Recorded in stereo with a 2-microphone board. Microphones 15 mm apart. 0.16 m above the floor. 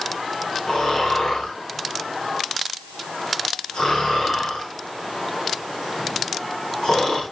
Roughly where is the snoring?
Left.